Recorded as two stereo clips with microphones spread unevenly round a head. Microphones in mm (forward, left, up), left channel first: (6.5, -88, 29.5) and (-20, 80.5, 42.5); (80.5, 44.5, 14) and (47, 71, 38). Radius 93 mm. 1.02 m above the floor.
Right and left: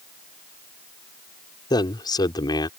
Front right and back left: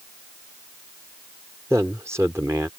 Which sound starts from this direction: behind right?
A man speaking, at 1.7 s.